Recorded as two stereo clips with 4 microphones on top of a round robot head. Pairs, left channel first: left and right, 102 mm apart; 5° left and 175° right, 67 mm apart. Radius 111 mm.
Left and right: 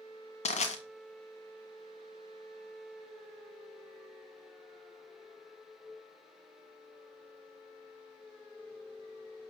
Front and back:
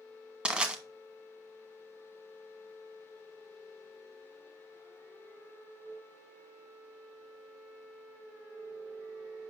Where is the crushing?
110° left, 1.3 m.